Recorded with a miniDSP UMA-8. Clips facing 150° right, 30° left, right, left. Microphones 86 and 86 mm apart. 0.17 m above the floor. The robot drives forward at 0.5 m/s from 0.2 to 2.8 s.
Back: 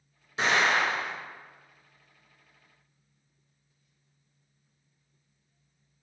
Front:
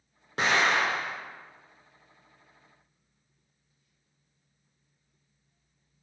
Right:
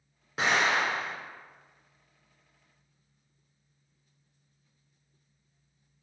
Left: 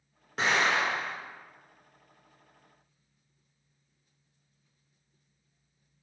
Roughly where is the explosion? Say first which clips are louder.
Even, even; ahead.